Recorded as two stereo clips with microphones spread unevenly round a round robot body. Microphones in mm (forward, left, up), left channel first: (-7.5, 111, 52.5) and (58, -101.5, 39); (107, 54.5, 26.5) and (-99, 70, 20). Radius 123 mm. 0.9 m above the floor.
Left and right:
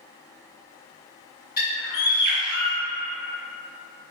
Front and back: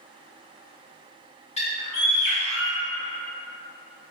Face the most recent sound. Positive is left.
turn(degrees=55)